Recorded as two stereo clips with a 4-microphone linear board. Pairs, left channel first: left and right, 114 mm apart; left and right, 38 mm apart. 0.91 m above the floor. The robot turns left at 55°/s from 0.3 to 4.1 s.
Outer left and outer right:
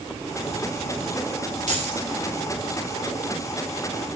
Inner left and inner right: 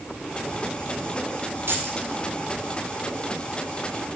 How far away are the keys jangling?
About 2 m.